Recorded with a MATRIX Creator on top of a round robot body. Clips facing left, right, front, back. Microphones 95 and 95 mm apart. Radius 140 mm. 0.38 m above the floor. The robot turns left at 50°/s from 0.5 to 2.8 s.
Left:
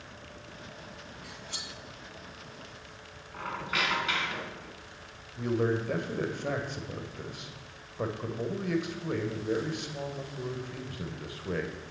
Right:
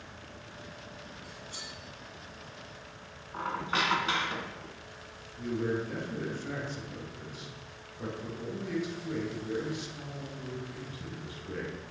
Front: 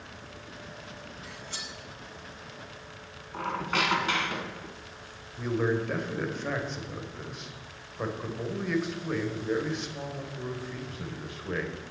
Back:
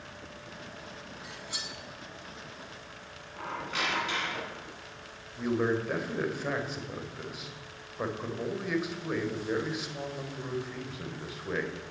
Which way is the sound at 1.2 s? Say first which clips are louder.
Left 1 dB, even; 115° left.